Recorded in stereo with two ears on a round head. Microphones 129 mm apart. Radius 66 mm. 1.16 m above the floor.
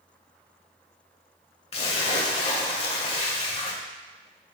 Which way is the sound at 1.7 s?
45° left (ahead or behind).